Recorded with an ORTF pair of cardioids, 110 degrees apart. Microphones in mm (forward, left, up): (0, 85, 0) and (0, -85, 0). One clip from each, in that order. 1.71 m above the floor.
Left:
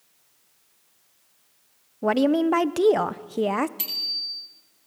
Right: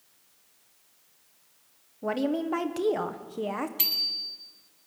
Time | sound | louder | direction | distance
2.0 | a woman speaking | left 8 dB | 40° left | 1.0 m
3.8 | a bicycle bell | even | 20° right | 10 m